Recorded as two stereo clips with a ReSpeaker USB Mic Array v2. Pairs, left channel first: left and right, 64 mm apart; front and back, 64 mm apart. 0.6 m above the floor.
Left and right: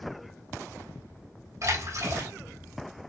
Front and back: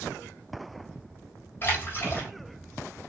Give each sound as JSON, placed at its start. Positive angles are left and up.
{"t": 1.6, "sound": "a splash", "azimuth_deg": -55, "distance_m": 3.5}